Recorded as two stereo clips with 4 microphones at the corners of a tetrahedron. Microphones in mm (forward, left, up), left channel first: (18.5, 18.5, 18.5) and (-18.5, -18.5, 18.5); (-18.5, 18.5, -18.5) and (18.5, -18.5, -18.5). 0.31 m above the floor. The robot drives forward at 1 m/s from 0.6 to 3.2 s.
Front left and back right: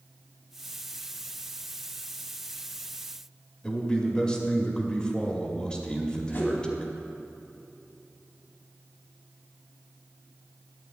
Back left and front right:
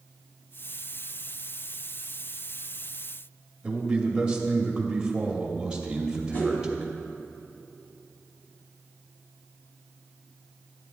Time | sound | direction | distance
3.6 | a man speaking | 5° right | 0.9 m
6.3 | a whoosh | 90° left | 1.5 m